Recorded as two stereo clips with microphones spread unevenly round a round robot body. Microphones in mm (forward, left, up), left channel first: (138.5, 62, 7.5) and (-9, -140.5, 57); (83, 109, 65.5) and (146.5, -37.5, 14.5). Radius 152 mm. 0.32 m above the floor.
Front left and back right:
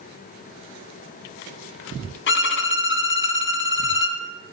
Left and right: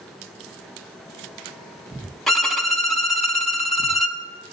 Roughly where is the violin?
Ahead.